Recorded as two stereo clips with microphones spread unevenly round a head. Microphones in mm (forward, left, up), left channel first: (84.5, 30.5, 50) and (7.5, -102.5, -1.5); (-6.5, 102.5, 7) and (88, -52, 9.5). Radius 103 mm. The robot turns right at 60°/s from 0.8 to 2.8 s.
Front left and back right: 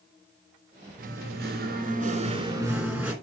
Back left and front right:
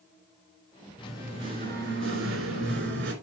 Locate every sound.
1.0 s singing: 155° right, 3 m; by 3.1 s 45° right, 3 m